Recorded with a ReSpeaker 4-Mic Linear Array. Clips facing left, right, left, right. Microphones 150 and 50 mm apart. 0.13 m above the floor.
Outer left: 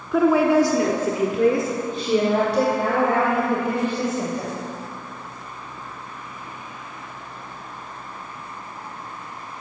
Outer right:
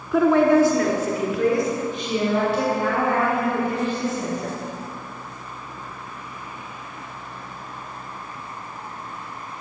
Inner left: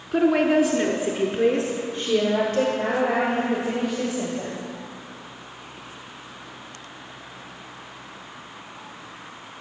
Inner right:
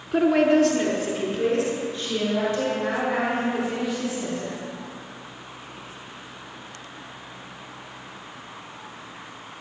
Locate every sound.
0.1 s a woman speaking: centre (ahead or behind), 1.1 m; by 4.5 s 70° left (ahead or behind), 3.5 m